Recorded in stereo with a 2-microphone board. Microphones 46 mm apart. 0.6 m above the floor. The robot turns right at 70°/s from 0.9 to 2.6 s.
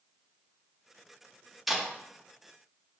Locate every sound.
1.7 s tape being pulled: 5° left (ahead or behind), 0.6 m; by 1.8 s 5° right (ahead or behind), 0.6 m